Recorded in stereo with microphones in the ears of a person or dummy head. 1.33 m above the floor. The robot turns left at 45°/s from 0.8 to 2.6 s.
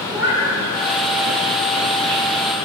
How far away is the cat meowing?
About 1.2 m.